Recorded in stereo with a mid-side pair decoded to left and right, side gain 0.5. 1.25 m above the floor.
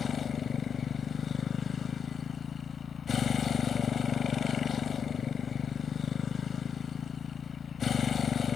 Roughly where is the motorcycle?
Ahead left.